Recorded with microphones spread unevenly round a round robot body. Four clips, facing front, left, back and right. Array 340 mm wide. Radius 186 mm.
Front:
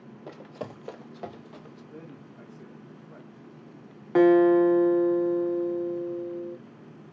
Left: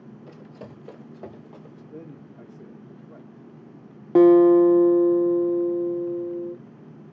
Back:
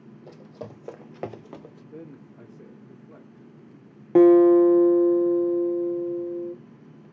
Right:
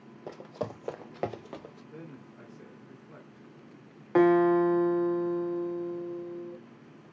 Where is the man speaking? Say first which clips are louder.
Left 6 dB, back 4 dB; 140° left, 1.0 m.